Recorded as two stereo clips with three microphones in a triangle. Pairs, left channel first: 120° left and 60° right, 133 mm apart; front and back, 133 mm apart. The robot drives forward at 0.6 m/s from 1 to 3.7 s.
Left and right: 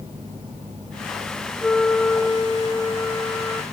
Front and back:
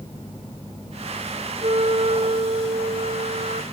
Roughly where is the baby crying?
No baby crying in this recording.